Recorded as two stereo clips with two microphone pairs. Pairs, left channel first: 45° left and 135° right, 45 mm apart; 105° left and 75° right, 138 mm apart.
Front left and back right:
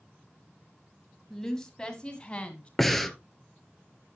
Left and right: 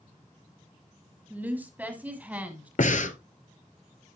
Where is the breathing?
130° left, 0.7 m.